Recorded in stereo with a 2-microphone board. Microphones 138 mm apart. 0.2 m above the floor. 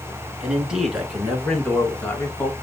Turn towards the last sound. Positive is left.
turn(degrees=20)  # may be behind; listen again after turning